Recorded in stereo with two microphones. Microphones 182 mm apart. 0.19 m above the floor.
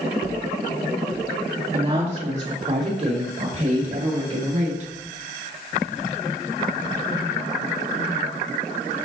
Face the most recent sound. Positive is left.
turn(degrees=-45)  # may be behind; listen again after turning